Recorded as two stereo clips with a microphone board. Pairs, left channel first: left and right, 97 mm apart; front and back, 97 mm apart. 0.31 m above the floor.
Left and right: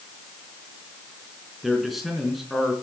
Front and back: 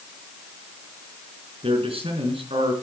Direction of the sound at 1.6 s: Straight behind.